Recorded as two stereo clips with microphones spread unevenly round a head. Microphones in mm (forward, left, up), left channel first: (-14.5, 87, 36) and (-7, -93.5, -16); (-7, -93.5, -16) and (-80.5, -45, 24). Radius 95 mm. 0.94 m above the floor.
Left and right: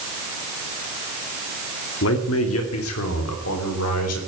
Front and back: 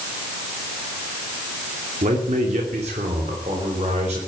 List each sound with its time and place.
2.0 s a man speaking: 110° left, 2.5 m; by 4.2 s 90° left, 4 m